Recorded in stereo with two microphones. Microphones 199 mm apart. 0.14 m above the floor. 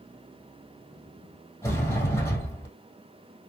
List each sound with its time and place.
1.6 s a sliding door: 15° left (ahead or behind), 2.5 m